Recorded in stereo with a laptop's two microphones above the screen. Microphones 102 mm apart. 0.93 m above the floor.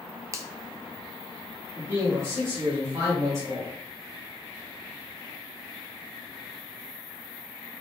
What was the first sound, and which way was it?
A finger snap, 25° right (ahead or behind).